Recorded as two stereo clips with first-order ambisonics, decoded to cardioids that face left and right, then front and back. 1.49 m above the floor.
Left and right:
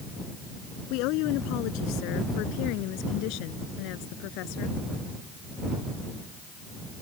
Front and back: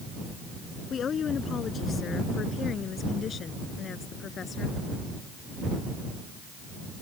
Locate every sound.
0.9 s a woman speaking: 65° left